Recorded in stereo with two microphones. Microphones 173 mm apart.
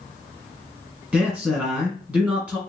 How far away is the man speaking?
About 1.9 m.